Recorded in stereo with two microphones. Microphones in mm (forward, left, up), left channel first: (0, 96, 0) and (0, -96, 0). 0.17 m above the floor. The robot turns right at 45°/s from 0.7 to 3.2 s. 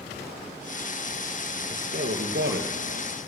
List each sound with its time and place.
1.7 s a man speaking: 130° right, 3.5 m; by 3.1 s 70° right, 3.5 m